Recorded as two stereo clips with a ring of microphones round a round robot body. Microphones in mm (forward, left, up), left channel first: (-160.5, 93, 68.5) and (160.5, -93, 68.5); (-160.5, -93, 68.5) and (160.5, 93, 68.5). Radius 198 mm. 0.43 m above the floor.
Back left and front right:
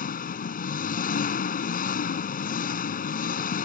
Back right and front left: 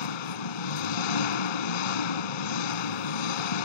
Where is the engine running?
140° right.